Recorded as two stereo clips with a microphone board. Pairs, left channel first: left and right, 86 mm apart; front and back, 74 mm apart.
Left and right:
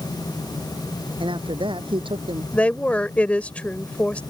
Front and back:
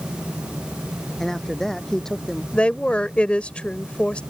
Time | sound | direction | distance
1.2 | a man speaking | 85° right | ?
2.5 | a woman speaking | 45° left | ?